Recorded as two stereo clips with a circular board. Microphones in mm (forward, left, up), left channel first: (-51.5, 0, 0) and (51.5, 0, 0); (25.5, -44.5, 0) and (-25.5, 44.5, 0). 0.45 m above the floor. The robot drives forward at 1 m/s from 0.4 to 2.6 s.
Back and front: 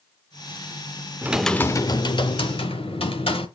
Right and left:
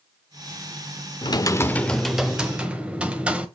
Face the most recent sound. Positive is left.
turn(degrees=-160)